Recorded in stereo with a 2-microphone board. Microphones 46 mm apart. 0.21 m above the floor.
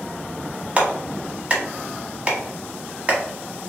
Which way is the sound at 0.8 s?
25° right (ahead or behind).